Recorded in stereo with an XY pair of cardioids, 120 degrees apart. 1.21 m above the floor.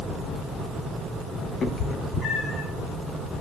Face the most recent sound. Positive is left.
turn(degrees=55)